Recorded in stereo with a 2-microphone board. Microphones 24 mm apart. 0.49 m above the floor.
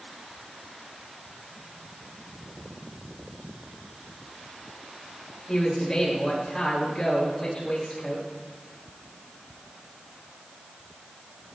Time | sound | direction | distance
5.5 | a man speaking | 30° left (ahead or behind) | 9.5 m